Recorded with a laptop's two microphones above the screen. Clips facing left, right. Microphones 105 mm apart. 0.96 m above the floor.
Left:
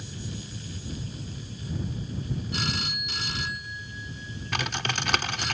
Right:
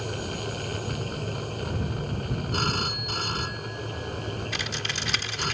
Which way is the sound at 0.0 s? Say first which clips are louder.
Right 8 dB; 65° right (ahead or behind).